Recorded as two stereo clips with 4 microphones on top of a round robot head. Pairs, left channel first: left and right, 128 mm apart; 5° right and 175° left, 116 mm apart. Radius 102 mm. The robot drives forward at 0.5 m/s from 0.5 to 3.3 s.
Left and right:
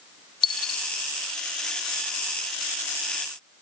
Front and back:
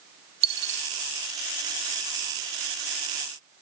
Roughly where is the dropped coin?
Behind left.